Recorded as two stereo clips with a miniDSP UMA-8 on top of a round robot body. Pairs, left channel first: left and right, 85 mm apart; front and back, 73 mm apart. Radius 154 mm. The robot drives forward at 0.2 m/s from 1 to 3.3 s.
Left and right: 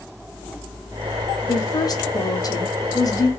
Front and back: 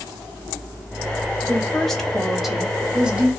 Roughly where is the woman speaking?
Left.